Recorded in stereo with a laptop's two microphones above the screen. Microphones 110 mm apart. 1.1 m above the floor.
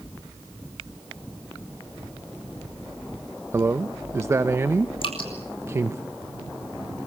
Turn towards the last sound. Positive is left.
turn(degrees=55)  # may be behind; listen again after turning